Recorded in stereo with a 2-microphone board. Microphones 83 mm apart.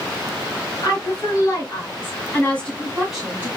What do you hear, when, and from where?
0.8 s a woman speaking: 45° left (ahead or behind), 3 m; by 3.5 s 20° right (ahead or behind), 1.4 m